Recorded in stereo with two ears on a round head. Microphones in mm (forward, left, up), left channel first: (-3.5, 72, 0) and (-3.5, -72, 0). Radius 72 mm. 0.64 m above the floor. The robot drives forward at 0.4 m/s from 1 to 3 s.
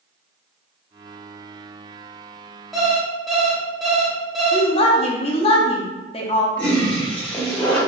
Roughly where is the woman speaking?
Left.